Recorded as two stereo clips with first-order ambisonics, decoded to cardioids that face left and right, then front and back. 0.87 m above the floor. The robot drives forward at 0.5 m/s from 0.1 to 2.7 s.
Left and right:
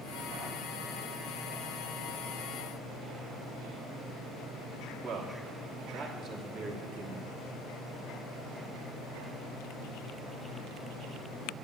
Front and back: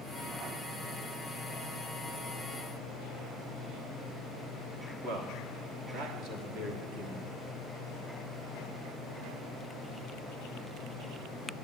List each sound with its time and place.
5.0 s a man speaking: 145° right, 1.1 m